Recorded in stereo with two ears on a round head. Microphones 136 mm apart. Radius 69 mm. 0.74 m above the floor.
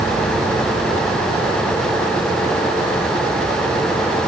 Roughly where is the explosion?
I don't hear an explosion.